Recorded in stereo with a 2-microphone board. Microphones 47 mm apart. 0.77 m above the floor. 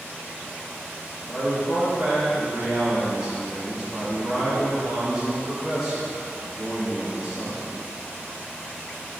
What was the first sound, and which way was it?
A man speaking, 10° right (ahead or behind).